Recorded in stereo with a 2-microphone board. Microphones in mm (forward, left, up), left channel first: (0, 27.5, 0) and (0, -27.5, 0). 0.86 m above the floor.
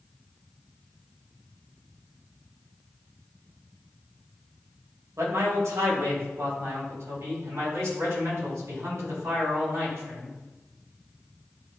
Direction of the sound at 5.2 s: 60° right (ahead or behind).